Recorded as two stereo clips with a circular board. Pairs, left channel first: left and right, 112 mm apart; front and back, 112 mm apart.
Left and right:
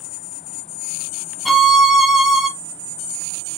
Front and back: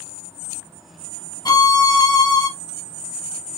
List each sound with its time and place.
1.4 s a violin: straight ahead, 0.7 m